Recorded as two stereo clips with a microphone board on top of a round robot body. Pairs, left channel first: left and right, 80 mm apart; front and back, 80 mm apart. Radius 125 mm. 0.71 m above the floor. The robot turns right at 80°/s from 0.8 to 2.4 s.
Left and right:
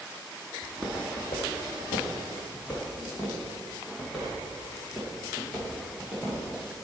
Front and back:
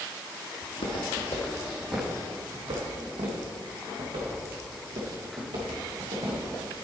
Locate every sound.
0.6 s footsteps: 5° left, 1.6 m; by 6.4 s 175° right, 4.5 m